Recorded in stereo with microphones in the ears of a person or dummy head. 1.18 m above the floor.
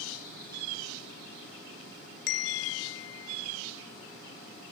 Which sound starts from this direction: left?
A bell, at 2.3 s.